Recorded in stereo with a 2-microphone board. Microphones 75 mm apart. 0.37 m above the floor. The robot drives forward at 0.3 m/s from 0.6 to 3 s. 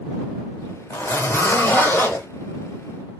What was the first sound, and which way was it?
A zipper, 35° left (ahead or behind).